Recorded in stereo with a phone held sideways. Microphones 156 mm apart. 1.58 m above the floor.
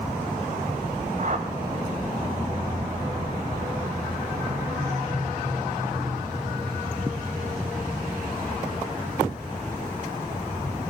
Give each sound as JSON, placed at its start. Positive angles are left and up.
{"t": 1.2, "sound": "a whoosh", "side_deg": -55, "distance_m": 2.5}